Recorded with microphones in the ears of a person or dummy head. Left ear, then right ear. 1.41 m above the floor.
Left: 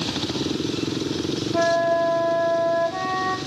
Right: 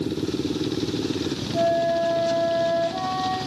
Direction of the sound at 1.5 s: 50° left (ahead or behind).